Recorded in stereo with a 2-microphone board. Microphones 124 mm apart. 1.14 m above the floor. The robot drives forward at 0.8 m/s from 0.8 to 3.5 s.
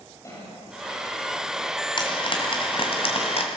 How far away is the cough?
About 6.5 m.